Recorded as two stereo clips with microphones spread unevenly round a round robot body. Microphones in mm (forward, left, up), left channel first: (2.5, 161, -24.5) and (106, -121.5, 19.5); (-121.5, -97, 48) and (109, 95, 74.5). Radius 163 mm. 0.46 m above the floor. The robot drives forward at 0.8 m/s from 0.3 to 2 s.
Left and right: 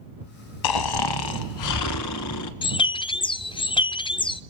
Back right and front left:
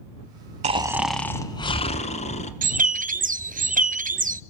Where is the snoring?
105° left, 0.8 m; by 2.5 s 150° left, 1.5 m.